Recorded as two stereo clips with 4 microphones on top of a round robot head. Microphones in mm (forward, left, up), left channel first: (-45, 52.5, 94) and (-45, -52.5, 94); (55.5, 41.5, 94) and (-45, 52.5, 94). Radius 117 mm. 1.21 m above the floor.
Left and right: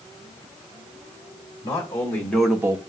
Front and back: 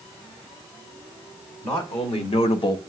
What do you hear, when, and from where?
1.6 s a man speaking: 25° left, 1.8 m; by 2.8 s 55° right, 0.5 m